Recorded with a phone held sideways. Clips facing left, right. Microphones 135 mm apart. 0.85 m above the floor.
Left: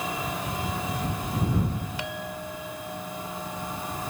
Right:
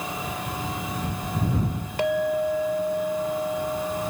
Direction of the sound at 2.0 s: 60° right (ahead or behind).